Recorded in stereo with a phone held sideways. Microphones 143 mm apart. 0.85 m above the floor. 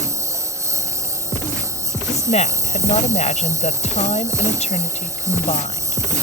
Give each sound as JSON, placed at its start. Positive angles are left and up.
{"t": 0.0, "sound": "a lawn mower", "side_deg": -20}
{"t": 2.1, "sound": "a woman speaking", "side_deg": 50}